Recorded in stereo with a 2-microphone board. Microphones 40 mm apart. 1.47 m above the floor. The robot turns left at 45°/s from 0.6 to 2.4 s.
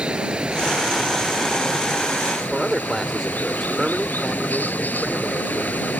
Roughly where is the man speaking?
Centre.